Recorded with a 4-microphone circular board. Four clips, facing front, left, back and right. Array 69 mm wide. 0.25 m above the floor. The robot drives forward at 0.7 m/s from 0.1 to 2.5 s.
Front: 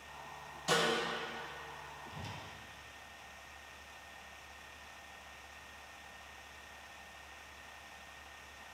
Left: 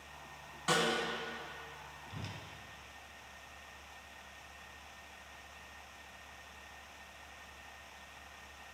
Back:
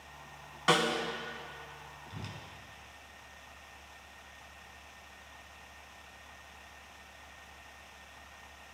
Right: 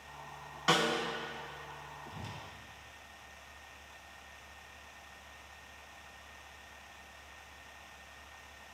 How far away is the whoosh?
About 1.5 m.